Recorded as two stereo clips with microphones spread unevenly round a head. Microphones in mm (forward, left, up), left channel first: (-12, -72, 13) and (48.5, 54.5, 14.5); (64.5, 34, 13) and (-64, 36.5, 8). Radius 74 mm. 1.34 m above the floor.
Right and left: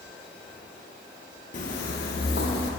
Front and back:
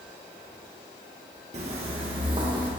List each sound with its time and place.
1.5 s footsteps: 140° right, 2 m; by 2.7 s 115° right, 3 m